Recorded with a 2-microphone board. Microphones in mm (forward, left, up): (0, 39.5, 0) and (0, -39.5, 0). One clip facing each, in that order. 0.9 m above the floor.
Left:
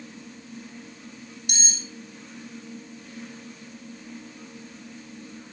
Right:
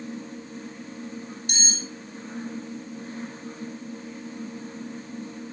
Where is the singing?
No singing in this recording.